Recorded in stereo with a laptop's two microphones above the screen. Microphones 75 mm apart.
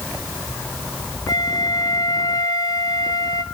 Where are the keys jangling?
No keys jangling in this recording.